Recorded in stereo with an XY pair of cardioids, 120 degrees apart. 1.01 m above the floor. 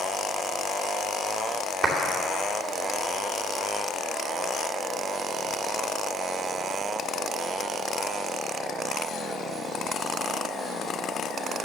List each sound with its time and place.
1.8 s a clap: 55° right, 2.5 m